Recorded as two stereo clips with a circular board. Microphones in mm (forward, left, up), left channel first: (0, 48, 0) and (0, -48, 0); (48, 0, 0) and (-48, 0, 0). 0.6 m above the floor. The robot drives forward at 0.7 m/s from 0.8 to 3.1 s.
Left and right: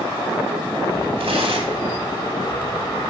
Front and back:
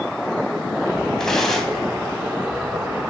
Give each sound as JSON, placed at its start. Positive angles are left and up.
{"t": 1.2, "sound": "tearing paper", "azimuth_deg": -85, "distance_m": 3.5}